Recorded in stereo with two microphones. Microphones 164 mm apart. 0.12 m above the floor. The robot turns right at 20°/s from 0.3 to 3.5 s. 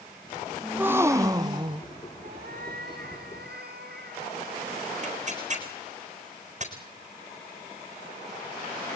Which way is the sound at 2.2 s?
70° right (ahead or behind).